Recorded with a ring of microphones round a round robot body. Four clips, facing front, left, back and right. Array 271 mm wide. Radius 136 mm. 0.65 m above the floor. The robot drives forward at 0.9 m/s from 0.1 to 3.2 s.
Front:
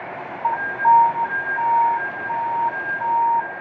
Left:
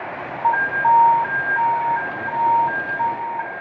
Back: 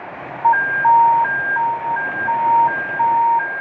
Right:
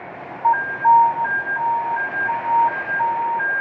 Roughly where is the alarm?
Behind.